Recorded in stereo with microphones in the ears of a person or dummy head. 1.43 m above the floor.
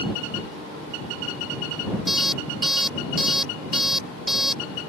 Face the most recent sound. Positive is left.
turn(degrees=0)  # may be behind; listen again after turning